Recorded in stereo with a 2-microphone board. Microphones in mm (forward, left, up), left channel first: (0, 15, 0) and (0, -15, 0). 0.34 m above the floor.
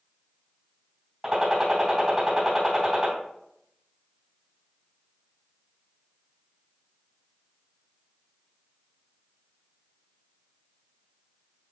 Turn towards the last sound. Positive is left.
turn(degrees=-15)  # may be behind; listen again after turning